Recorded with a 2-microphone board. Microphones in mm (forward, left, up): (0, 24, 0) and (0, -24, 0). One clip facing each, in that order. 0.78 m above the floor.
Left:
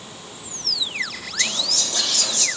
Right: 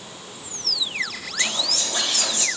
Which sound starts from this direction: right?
Whispering, at 1.4 s.